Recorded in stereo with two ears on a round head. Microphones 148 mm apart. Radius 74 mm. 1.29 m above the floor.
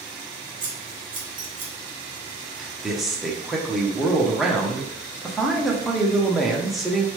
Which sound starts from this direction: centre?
A man speaking, at 2.6 s.